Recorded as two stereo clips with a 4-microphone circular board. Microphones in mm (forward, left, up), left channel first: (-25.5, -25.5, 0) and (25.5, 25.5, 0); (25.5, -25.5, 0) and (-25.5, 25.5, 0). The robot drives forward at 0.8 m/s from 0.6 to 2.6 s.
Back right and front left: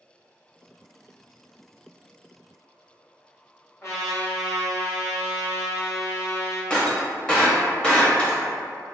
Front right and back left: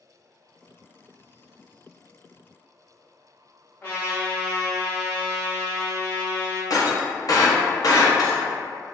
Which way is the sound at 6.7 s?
65° right.